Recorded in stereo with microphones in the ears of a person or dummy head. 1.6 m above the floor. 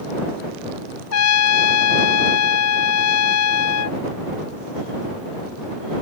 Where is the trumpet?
80° left.